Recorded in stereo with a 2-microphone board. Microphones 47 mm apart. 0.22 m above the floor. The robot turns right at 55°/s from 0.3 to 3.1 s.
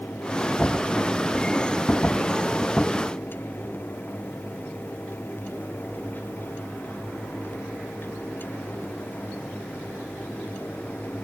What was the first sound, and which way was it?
Only background noise.